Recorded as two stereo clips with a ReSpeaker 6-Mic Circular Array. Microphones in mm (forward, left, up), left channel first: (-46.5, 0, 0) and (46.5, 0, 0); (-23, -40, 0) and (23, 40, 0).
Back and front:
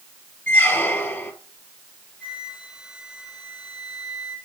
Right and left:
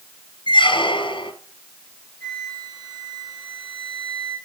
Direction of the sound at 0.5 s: 115° right.